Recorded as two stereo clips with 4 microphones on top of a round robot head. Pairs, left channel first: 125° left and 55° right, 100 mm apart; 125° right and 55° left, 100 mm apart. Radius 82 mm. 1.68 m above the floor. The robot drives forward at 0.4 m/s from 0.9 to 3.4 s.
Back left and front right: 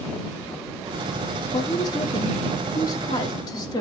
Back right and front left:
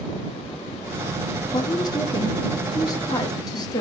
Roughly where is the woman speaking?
Behind.